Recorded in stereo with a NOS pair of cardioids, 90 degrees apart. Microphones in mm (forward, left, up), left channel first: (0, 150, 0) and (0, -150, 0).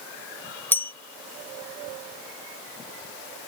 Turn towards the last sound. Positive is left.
turn(degrees=5)